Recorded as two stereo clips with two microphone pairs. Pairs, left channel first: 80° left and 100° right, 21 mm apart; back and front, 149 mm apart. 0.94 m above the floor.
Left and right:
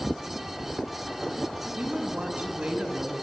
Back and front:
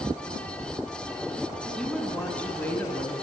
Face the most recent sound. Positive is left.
turn(degrees=-110)